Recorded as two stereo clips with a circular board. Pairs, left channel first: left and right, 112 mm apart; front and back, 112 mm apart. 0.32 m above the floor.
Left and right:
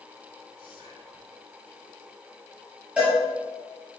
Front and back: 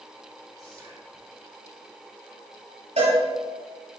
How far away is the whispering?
About 4 m.